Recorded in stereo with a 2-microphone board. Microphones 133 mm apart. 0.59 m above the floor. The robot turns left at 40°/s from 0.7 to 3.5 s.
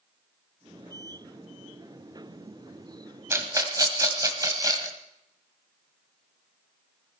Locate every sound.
3.3 s a rattle: 20° right (ahead or behind), 1.7 m; by 5.0 s 25° right (ahead or behind), 1.7 m